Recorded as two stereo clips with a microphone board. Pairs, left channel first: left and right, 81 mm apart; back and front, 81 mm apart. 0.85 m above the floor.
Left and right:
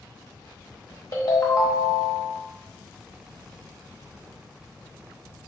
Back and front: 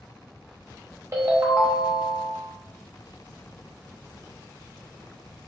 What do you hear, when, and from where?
1.1 s a ringtone: 50° left, 0.9 m